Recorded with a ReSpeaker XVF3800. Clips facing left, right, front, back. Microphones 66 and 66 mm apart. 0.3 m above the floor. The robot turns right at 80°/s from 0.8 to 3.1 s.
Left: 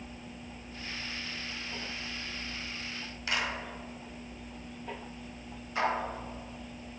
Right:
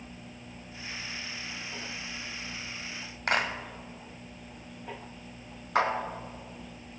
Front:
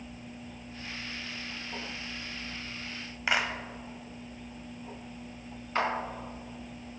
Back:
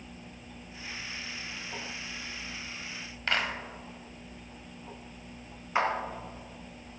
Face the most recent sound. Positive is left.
turn(degrees=-105)